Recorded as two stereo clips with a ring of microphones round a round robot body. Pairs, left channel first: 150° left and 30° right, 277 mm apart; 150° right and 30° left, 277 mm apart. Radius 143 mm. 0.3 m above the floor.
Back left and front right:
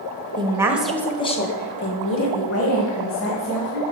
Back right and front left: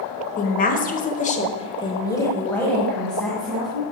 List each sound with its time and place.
0.4 s a woman speaking: 95° right, 1.4 m; by 3.8 s 120° left, 3 m